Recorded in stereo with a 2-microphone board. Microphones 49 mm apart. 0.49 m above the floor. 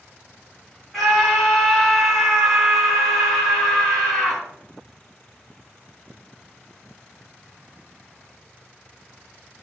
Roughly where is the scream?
Centre.